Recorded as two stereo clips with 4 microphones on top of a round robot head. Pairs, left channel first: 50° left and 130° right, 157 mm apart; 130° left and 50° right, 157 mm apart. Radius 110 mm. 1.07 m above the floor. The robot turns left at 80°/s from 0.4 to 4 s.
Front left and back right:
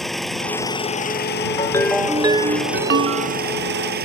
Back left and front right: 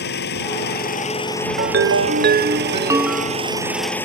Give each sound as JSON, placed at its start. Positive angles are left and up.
{"t": 0.0, "sound": "an engine running", "azimuth_deg": 135}
{"t": 1.6, "sound": "a ringtone", "azimuth_deg": -10}